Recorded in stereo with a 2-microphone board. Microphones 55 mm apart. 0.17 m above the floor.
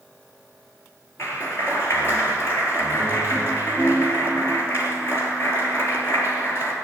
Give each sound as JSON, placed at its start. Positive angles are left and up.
{"t": 1.2, "sound": "a clap", "side_deg": 55, "distance_m": 3.0}